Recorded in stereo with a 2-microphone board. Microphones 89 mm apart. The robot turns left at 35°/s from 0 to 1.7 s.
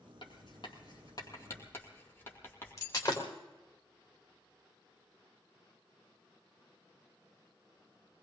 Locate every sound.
0.2 s writing: 65° left (ahead or behind), 2.5 m; by 3.1 s 25° left (ahead or behind), 2.5 m
2.8 s breaking glass: 35° left (ahead or behind), 3.5 m